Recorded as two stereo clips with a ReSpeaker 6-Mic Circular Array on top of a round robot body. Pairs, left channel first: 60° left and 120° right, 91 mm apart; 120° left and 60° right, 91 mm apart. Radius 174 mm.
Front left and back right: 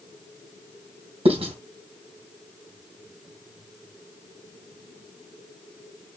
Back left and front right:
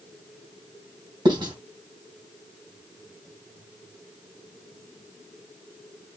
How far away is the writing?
About 2.5 m.